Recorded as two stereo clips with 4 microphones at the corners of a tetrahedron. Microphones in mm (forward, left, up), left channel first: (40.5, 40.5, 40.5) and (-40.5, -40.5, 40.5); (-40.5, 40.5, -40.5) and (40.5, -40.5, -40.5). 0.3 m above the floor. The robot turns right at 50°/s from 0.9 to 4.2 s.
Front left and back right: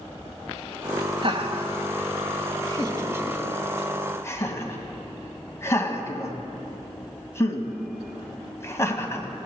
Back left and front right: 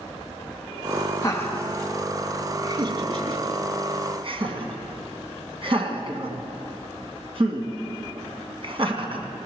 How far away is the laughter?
About 2 m.